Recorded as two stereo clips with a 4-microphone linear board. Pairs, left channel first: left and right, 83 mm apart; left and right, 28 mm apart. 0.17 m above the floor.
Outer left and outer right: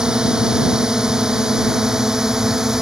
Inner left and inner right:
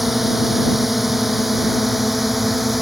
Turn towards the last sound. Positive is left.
turn(degrees=-5)  # may be behind; listen again after turning